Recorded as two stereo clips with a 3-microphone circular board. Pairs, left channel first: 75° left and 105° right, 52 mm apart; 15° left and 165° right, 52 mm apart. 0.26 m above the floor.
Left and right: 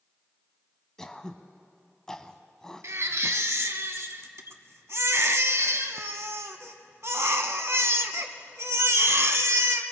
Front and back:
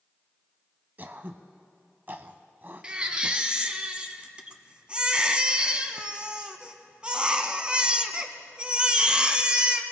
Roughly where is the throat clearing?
Behind left.